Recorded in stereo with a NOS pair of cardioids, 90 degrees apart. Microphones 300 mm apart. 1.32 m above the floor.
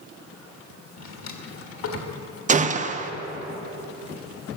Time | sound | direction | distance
1.0 | a drawer | 60° left | 1.7 m
2.5 | a gunshot | 25° right | 0.7 m